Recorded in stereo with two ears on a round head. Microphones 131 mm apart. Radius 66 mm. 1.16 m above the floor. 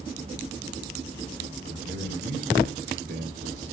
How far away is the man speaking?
About 4 m.